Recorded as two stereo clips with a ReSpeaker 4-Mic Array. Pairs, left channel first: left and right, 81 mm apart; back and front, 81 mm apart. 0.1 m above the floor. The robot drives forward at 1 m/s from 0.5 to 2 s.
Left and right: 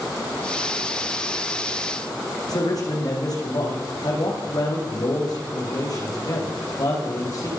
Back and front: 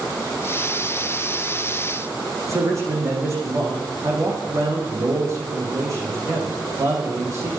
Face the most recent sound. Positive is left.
turn(degrees=50)